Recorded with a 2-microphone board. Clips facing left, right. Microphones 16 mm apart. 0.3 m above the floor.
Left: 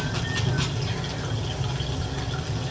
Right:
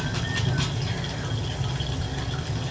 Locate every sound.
0.0 s running water: 5° left (ahead or behind), 2.5 m